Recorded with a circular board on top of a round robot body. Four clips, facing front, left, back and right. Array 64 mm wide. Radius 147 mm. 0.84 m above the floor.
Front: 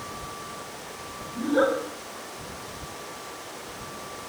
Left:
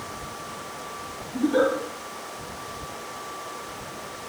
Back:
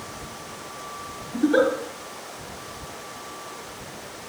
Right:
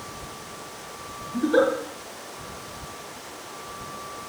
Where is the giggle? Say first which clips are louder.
Right 1 dB, back 3 dB; 150° right, 3 m.